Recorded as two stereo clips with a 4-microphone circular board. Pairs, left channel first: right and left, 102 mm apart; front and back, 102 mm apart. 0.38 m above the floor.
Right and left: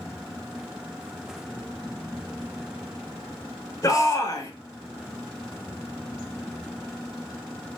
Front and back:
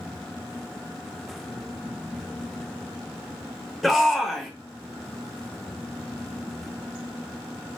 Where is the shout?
90° right, 1.1 m.